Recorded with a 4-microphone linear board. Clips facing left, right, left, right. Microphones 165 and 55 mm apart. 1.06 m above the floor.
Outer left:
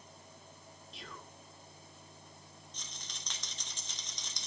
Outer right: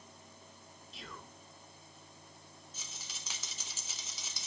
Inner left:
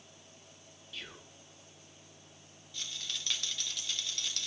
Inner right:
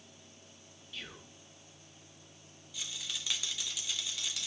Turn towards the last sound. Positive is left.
turn(degrees=-5)  # may be behind; listen again after turning